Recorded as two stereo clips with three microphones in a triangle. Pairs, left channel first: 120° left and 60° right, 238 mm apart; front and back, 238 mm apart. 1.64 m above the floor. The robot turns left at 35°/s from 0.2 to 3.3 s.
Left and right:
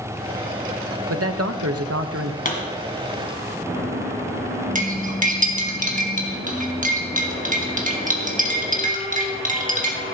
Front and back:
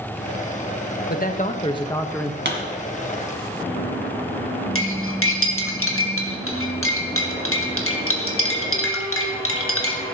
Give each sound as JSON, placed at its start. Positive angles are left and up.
{"t": 1.1, "sound": "a man speaking", "azimuth_deg": -45, "distance_m": 0.9}
{"t": 2.5, "sound": "a pop", "azimuth_deg": 165, "distance_m": 2.0}
{"t": 4.8, "sound": "cutlery clinking", "azimuth_deg": -10, "distance_m": 1.5}